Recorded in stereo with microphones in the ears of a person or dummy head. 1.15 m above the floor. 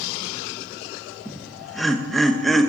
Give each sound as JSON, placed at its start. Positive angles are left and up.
{"t": 1.2, "sound": "laughter", "side_deg": 0, "distance_m": 0.8}